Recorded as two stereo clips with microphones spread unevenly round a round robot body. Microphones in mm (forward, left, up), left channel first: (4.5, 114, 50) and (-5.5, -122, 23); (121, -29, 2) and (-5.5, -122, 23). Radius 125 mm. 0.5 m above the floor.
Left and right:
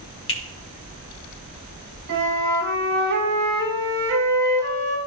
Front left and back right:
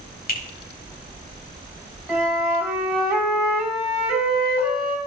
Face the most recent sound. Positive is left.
turn(degrees=-55)